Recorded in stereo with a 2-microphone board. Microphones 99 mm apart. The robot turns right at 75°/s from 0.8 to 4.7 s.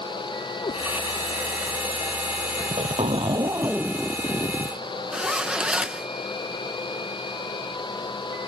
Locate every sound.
0.6 s a cat meowing: 75° left (ahead or behind)
2.6 s a zipper: 105° right; by 4.8 s 55° left
5.1 s a zipper: 10° right (ahead or behind)